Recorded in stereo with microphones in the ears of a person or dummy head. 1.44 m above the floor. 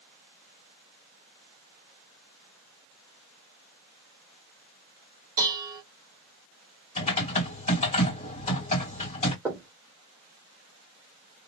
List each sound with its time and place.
5.4 s dishes clattering: 20° right (ahead or behind), 0.7 m
7.0 s typing on a keyboard: 35° left (ahead or behind), 2.0 m
9.4 s knocking: 20° right (ahead or behind), 1.3 m